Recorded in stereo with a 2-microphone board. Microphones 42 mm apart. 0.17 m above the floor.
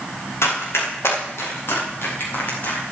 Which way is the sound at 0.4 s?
85° left.